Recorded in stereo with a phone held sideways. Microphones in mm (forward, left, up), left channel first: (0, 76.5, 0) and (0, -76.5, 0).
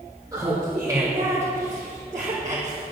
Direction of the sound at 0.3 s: 20° right (ahead or behind).